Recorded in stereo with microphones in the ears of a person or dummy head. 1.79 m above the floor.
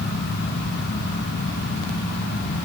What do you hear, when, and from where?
Only background noise.